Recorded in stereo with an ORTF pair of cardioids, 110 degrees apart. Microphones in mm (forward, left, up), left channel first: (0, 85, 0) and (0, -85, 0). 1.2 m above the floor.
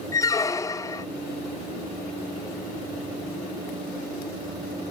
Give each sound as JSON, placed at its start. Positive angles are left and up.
{"t": 0.1, "sound": "a squeak", "azimuth_deg": 20, "distance_m": 0.6}